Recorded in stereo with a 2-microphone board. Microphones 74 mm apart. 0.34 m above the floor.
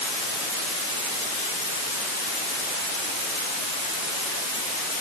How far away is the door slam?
No door slam in this recording.